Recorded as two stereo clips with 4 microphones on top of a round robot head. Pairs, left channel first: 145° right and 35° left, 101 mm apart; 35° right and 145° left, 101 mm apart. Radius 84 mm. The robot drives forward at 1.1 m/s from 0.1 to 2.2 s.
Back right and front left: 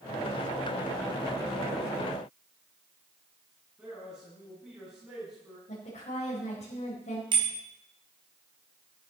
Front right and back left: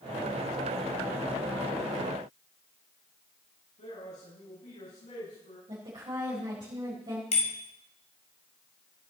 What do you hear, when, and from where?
3.8 s a man speaking: 45° right, 8 m
5.7 s a woman speaking: 165° right, 5 m
7.3 s a bicycle bell: 10° right, 3.5 m